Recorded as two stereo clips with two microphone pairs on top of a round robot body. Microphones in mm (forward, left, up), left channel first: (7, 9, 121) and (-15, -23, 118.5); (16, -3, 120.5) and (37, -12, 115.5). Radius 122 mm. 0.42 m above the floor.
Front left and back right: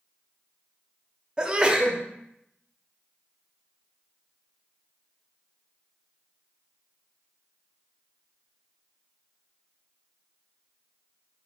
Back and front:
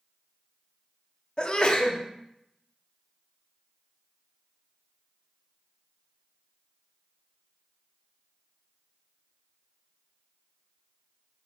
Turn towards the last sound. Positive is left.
turn(degrees=-160)